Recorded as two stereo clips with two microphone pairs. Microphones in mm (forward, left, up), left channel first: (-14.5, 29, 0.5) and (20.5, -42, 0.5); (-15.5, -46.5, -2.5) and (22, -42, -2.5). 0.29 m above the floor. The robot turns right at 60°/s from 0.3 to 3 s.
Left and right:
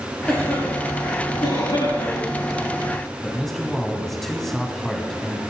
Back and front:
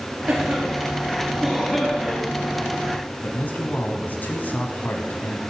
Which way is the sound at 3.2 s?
160° right.